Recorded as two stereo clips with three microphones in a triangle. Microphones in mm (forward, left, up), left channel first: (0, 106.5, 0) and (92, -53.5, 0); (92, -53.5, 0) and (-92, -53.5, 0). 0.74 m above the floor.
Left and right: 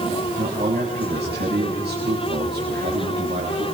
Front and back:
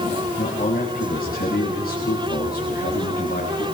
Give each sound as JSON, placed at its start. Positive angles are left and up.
{"t": 0.4, "sound": "a man speaking", "azimuth_deg": -35, "distance_m": 7.0}